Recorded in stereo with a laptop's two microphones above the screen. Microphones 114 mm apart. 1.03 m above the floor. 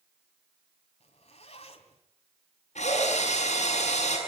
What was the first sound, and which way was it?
A zipper, 65° left (ahead or behind).